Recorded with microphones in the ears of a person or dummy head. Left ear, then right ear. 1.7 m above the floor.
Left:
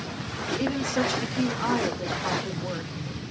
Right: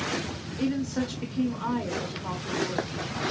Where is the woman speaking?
25° left (ahead or behind), 0.6 m.